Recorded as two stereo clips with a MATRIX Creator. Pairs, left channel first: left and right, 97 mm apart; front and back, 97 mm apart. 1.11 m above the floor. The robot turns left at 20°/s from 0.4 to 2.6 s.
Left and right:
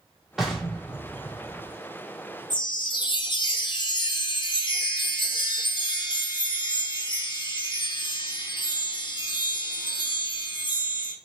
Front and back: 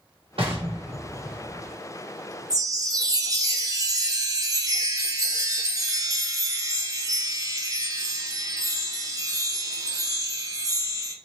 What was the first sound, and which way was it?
An explosion, 175° right.